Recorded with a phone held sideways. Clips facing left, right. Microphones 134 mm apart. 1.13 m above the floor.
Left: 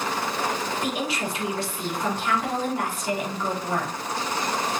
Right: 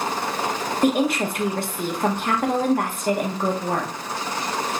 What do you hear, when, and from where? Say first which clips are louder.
0.8 s a woman speaking: right 8 dB; 55° right (ahead or behind), 1.1 m